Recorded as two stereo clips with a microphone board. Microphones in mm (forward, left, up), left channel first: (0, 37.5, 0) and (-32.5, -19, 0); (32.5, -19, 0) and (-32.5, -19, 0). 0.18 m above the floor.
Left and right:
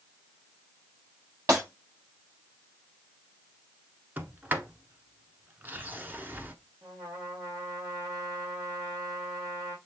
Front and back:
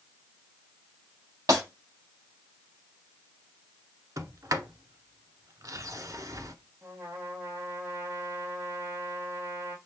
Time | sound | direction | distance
1.5 | breaking glass | 160° right | 4 m
4.2 | a sliding door | straight behind | 0.7 m
6.8 | a trumpet | 130° right | 2 m